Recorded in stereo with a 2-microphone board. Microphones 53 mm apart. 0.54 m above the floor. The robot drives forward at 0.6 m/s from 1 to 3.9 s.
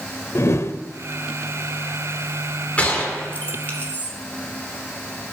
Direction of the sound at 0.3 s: 60° left (ahead or behind).